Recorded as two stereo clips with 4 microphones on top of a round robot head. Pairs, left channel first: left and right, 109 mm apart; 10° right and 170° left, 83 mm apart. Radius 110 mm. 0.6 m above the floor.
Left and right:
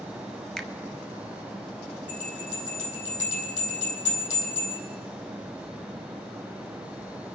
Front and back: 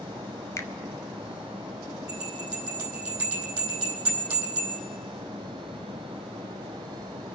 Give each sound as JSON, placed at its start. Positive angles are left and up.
{"t": 0.6, "sound": "a finger snap", "azimuth_deg": 5, "distance_m": 0.9}
{"t": 2.1, "sound": "a bell", "azimuth_deg": 100, "distance_m": 4.0}